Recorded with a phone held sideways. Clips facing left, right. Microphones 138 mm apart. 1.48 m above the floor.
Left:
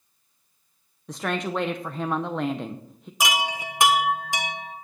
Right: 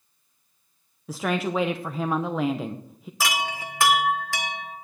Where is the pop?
No pop in this recording.